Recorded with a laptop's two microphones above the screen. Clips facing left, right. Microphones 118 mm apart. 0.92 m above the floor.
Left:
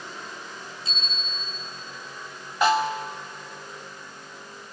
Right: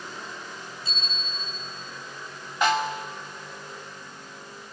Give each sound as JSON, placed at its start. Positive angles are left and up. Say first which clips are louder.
{"t": 0.8, "sound": "a bicycle bell", "louder": "even", "side_deg": 15, "distance_m": 8.0}
{"t": 2.6, "sound": "a snare drum", "louder": "left 3 dB", "side_deg": 10, "distance_m": 2.5}